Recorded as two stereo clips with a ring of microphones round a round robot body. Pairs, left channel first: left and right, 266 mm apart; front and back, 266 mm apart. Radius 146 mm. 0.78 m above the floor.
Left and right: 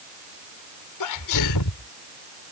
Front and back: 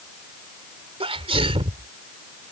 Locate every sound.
1.0 s a sneeze: 110° left